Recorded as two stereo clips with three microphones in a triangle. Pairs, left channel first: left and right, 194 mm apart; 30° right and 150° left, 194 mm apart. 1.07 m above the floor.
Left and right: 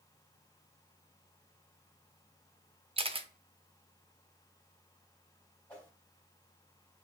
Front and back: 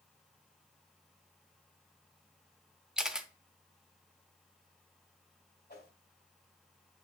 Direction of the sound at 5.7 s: 5° left.